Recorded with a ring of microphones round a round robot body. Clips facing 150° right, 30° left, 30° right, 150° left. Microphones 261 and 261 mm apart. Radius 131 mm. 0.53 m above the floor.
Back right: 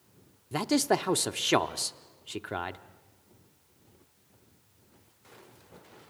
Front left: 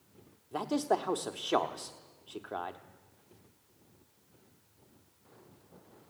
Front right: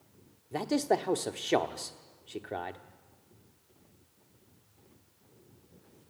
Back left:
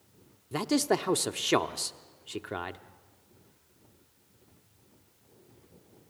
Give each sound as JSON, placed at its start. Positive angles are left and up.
{"t": 0.5, "sound": "a man speaking", "azimuth_deg": -150, "distance_m": 0.9}